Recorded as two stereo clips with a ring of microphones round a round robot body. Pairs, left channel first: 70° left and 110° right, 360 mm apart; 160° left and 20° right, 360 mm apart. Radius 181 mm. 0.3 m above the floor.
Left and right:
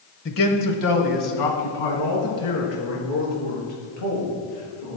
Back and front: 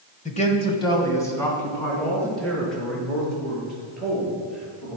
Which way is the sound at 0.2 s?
105° left.